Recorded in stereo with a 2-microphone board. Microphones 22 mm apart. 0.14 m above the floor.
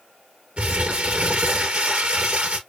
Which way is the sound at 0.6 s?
65° right (ahead or behind).